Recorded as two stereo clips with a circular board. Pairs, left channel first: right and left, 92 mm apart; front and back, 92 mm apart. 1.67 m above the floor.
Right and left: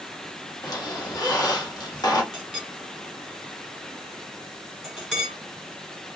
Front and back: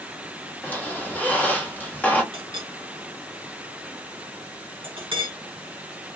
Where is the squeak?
65° right, 0.9 m.